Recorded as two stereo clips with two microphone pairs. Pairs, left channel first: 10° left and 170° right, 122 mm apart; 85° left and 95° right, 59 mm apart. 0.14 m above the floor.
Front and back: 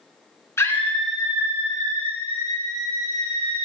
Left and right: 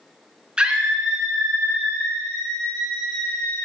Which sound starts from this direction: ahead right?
A scream, at 0.6 s.